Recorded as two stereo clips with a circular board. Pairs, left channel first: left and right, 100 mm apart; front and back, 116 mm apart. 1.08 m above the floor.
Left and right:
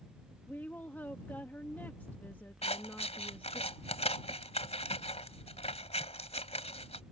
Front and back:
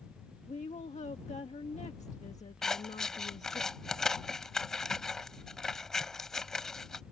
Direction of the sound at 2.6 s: 85° left.